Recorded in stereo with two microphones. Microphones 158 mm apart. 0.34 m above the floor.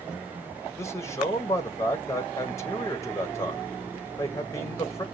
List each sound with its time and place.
0.8 s a man speaking: 20° left (ahead or behind), 1.4 m